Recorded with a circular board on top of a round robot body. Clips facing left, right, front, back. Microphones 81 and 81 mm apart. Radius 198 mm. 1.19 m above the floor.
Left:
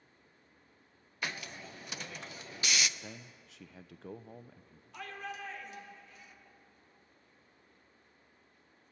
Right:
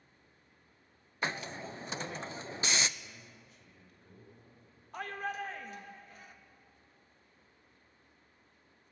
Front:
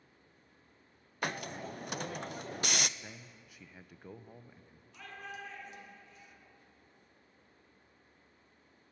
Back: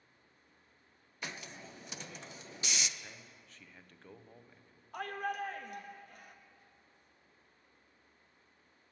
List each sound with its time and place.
1.2 s a hiss: 30° right, 0.6 m
3.0 s a man speaking: 80° left, 0.7 m
4.9 s a shout: 140° right, 1.3 m